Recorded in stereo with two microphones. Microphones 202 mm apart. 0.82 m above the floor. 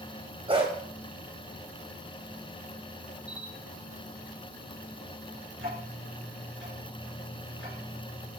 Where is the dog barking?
30° right (ahead or behind), 1.8 m.